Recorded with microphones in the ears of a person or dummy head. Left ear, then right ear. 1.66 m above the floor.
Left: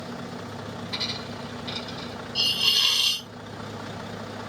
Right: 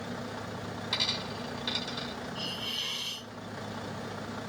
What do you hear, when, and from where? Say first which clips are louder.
0.9 s a dropped coin: even; 60° right (ahead or behind), 2.5 m
2.4 s a hiss: left 15 dB; 65° left (ahead or behind), 1.0 m